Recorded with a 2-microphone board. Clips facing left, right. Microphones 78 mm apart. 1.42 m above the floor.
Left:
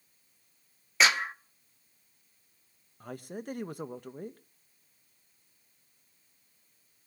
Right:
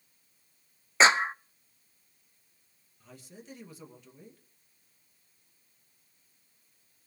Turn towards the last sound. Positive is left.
turn(degrees=60)  # may be behind; listen again after turning